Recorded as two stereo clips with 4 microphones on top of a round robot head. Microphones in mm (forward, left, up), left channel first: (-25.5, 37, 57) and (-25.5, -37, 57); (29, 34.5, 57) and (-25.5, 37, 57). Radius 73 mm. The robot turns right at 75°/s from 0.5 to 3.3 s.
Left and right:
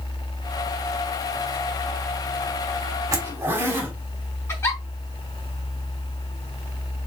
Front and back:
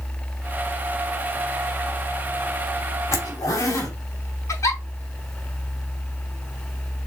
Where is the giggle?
30° left, 5 m.